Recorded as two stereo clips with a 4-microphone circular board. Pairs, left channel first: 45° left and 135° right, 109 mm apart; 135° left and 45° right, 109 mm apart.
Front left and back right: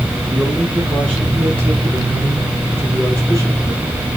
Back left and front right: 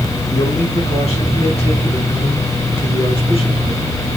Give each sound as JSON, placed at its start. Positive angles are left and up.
{"t": 0.3, "sound": "a man speaking", "azimuth_deg": 145, "distance_m": 5.0}